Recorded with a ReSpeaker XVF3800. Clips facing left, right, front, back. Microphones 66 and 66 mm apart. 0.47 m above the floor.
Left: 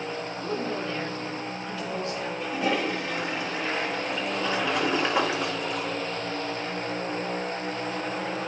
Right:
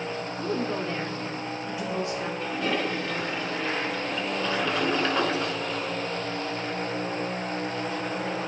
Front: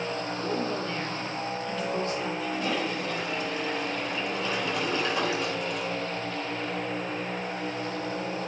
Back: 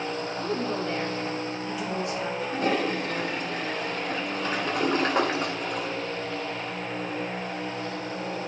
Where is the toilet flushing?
165° left, 1.6 m.